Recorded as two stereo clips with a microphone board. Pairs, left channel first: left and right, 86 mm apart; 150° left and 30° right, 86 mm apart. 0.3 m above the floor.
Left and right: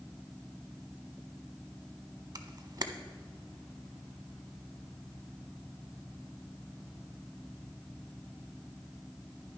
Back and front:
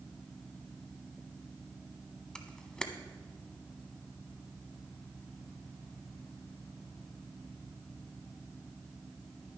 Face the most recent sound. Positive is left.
turn(degrees=-130)